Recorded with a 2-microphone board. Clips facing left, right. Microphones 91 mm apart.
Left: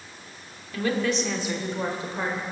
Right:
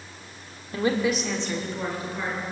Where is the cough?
No cough in this recording.